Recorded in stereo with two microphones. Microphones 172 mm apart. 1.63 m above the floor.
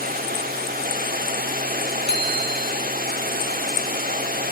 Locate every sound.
0.0 s running water: 55° right (ahead or behind), 2.5 m
2.1 s a bicycle bell: 80° left, 4 m